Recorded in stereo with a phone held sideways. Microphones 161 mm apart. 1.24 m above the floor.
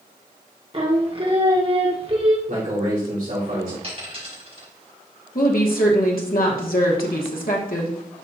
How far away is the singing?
About 1.1 m.